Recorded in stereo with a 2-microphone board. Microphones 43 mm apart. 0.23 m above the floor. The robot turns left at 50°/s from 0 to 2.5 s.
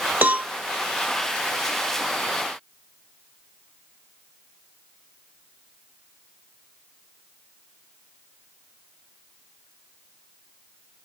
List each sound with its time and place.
0.2 s a cowbell: 40° right (ahead or behind), 0.5 m; by 0.5 s 35° right (ahead or behind), 0.5 m